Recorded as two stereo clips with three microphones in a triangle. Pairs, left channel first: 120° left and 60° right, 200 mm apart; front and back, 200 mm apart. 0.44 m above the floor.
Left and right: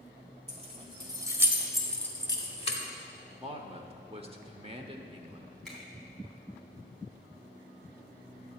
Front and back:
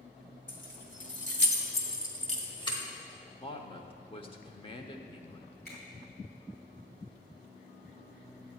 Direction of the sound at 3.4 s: 35° right.